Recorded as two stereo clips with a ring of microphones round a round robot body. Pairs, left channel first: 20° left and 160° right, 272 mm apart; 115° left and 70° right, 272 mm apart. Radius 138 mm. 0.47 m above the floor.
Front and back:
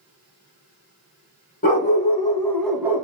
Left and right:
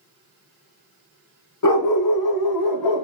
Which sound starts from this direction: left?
A dog barking, at 1.6 s.